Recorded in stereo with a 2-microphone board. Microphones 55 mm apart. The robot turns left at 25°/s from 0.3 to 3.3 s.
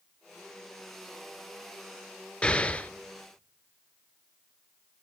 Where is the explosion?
20° left (ahead or behind), 0.6 m; by 2.9 s 30° left (ahead or behind), 0.6 m.